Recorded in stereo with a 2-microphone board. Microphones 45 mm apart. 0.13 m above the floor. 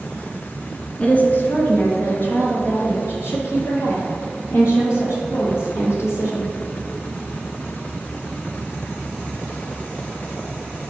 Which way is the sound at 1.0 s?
30° left (ahead or behind).